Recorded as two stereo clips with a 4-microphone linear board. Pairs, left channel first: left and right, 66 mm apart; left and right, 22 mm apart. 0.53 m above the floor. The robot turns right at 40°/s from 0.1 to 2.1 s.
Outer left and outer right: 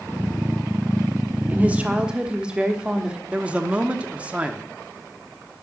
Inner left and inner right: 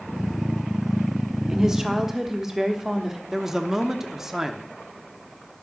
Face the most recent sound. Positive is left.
turn(degrees=-20)  # may be behind; listen again after turning